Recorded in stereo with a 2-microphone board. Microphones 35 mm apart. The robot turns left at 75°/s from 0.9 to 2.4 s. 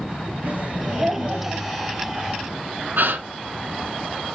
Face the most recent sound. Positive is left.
turn(degrees=-65)  # may be behind; listen again after turning